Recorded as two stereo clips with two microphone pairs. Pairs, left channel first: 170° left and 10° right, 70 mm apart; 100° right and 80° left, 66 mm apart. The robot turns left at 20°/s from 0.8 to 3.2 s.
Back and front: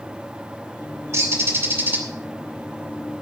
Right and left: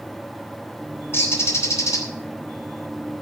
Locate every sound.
1.1 s a bird: 55° right, 3 m; by 2.0 s 70° right, 3 m